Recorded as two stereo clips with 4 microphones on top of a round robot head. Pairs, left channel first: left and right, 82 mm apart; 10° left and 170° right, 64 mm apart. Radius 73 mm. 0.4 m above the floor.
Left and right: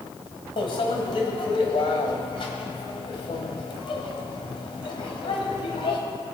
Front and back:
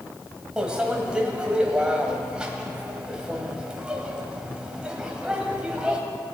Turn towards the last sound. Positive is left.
turn(degrees=115)